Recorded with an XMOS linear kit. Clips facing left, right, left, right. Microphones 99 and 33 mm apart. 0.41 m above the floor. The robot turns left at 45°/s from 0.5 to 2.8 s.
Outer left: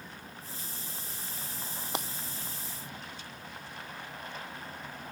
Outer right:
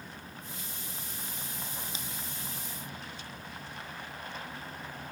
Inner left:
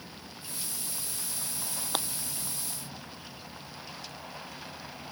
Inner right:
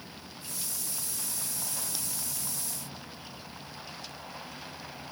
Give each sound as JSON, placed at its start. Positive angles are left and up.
{"t": 1.9, "sound": "breaking glass", "side_deg": 65}